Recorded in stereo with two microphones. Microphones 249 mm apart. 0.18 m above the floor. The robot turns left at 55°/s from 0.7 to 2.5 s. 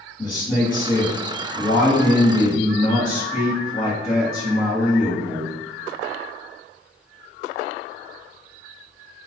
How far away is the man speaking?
About 1.7 m.